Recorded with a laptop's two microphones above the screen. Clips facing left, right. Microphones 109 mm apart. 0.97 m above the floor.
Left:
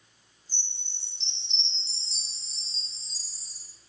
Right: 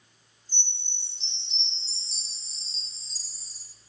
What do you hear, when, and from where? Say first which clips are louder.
0.5 s a chime: right 4 dB; 30° left (ahead or behind), 1.3 m